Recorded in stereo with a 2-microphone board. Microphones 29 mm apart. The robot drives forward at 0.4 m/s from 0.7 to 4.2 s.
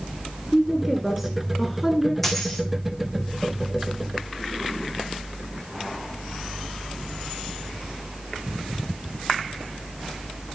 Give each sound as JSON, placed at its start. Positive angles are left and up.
{"t": 0.5, "sound": "a woman speaking", "side_deg": -5, "distance_m": 1.6}
{"t": 2.2, "sound": "a dropped coin", "side_deg": 10, "distance_m": 3.5}